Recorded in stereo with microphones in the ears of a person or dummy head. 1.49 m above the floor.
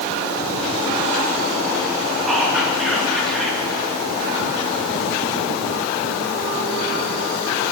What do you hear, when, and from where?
2.3 s whispering: 5° left (ahead or behind), 2.5 m